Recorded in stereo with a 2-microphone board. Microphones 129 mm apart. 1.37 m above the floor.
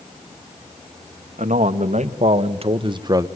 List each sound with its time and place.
1.4 s a man speaking: 70° right (ahead or behind), 1.9 m; by 3.3 s 25° right (ahead or behind), 1.0 m